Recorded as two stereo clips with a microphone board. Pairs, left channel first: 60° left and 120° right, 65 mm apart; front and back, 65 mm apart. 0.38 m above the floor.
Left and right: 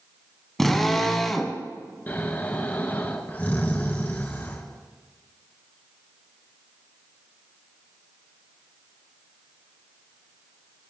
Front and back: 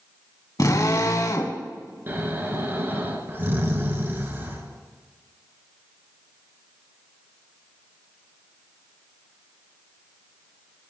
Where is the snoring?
125° left, 3.5 m.